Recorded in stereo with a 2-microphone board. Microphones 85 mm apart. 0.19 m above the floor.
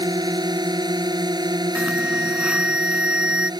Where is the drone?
55° right (ahead or behind).